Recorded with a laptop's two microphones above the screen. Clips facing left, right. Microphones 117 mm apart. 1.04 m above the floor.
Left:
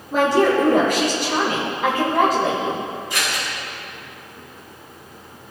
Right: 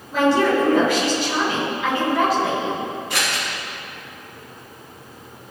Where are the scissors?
70° right (ahead or behind), 1.8 m.